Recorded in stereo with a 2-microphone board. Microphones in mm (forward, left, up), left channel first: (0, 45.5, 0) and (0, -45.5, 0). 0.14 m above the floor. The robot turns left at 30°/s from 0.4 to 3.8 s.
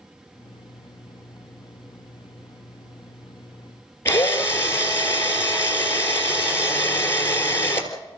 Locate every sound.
4.0 s a drill: 30° left (ahead or behind), 3 m